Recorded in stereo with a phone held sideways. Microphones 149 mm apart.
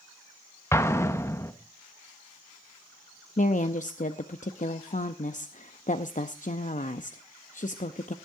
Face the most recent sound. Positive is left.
turn(degrees=60)  # may be behind; listen again after turning